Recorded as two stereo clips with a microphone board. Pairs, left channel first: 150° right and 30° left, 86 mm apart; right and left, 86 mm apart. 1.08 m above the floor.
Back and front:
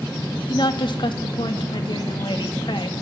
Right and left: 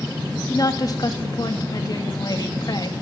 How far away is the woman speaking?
About 2 m.